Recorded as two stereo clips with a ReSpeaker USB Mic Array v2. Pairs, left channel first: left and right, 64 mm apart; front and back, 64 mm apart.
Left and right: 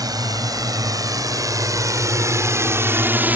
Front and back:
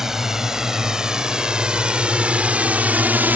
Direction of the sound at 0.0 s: 95° right.